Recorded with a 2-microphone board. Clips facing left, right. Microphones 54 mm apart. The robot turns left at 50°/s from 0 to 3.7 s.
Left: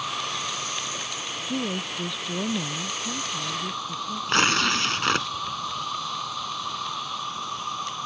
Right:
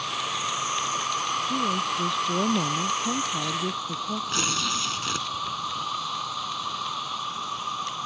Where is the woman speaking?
25° left; by 4.7 s 90° right.